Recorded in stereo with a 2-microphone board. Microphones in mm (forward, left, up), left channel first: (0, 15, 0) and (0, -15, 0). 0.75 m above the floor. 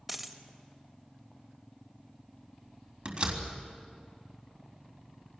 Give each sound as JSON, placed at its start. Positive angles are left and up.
{"t": 0.1, "sound": "a dropped coin", "side_deg": -5, "distance_m": 1.4}
{"t": 3.0, "sound": "a door slam", "side_deg": -40, "distance_m": 3.5}